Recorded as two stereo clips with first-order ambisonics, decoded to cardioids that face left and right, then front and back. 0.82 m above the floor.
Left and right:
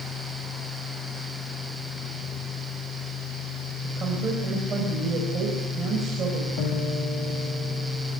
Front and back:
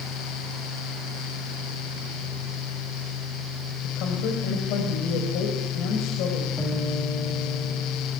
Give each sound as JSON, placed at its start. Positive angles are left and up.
{"t": 3.8, "sound": "a woman speaking", "azimuth_deg": -30, "distance_m": 5.0}
{"t": 6.6, "sound": "a guitar", "azimuth_deg": 85, "distance_m": 4.0}